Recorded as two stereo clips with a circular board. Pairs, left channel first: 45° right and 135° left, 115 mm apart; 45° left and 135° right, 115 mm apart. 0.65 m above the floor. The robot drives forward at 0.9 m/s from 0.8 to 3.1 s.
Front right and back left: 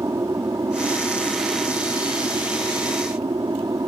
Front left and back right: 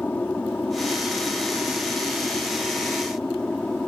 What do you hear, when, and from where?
0.0 s an aircraft: 110° left; by 3.9 s 120° left